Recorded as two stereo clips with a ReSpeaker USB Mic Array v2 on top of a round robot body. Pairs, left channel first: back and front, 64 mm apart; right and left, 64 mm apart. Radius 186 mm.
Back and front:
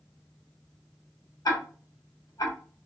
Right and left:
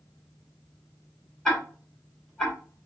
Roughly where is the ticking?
Behind.